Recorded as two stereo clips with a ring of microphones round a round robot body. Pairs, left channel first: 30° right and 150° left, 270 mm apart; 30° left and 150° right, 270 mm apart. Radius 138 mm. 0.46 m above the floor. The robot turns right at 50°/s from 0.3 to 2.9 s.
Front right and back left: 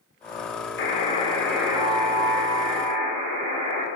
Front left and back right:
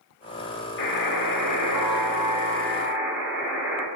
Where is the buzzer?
20° left, 3.5 m; by 3.9 s 125° left, 3.5 m.